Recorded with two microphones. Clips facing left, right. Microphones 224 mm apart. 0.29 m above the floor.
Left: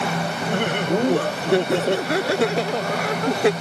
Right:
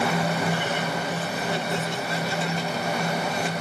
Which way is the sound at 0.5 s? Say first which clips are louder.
Left 6 dB; 65° left (ahead or behind).